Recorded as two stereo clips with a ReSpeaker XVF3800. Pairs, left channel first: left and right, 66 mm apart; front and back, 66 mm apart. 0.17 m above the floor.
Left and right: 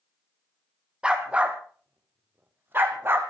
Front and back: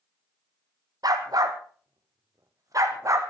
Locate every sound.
1.0 s a dog barking: 165° right, 2.5 m; by 3.2 s 140° right, 3 m